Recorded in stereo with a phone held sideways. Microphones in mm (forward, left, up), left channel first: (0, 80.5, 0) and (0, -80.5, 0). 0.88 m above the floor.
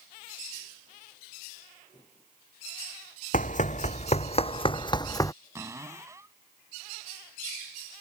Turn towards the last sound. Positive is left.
turn(degrees=-20)  # may be behind; listen again after turning